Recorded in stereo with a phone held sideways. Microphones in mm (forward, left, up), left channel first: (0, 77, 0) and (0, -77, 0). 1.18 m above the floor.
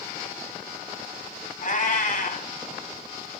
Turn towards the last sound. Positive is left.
turn(degrees=60)  # may be behind; listen again after turning